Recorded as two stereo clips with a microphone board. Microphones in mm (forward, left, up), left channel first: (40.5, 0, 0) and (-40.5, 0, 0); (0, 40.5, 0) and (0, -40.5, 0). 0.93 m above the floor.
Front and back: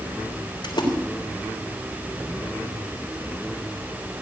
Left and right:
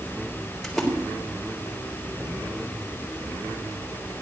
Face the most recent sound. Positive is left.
turn(degrees=5)